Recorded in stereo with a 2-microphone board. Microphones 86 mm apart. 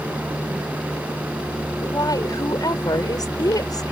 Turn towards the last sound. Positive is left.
turn(degrees=50)  # may be behind; listen again after turning